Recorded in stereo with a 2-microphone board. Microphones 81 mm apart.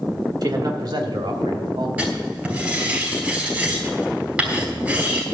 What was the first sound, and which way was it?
A man speaking, 50° right (ahead or behind).